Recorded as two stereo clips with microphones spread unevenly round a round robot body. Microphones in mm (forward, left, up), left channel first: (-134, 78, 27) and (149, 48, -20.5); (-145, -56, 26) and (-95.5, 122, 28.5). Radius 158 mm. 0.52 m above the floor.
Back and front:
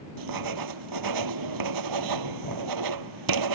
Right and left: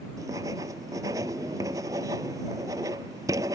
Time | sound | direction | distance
0.2 | writing | 5° right | ?